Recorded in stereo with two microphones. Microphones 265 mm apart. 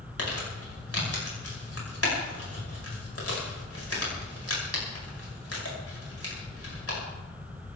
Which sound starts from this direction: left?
Crumpling, at 0.2 s.